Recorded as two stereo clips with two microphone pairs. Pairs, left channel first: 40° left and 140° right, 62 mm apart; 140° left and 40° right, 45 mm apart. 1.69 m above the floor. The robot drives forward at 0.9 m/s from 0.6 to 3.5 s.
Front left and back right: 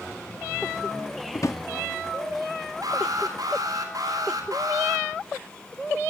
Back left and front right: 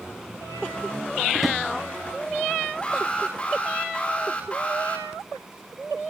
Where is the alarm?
155° right, 7 m.